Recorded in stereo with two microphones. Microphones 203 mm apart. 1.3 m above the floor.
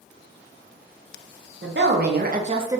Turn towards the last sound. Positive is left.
turn(degrees=-10)  # may be behind; listen again after turning